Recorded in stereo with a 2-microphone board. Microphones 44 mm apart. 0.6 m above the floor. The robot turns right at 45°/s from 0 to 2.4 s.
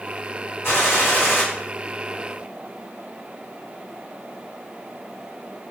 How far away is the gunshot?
About 1.5 m.